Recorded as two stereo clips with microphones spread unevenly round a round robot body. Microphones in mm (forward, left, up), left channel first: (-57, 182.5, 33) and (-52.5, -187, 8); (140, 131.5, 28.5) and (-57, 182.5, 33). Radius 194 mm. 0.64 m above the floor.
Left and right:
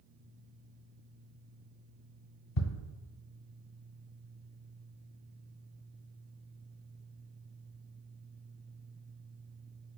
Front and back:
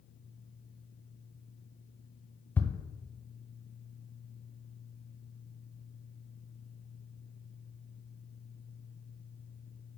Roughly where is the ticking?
Left.